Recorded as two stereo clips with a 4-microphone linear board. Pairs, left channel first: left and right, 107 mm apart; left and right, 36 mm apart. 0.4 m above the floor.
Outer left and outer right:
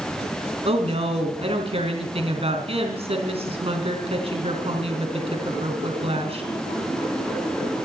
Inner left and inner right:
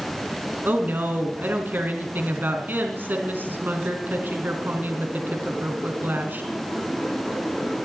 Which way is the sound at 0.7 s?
65° right (ahead or behind).